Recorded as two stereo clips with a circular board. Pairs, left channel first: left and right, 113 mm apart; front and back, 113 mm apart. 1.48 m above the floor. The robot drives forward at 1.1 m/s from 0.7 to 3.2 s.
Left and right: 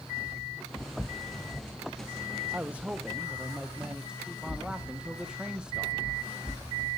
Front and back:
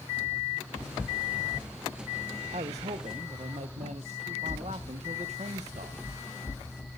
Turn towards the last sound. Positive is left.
turn(degrees=-170)